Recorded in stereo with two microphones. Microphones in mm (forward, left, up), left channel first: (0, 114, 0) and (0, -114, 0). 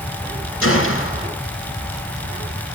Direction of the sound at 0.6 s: 70° left (ahead or behind).